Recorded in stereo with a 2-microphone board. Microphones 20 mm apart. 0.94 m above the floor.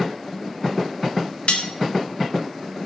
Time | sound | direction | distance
1.5 | cutlery clinking | 75° left (ahead or behind) | 1.4 m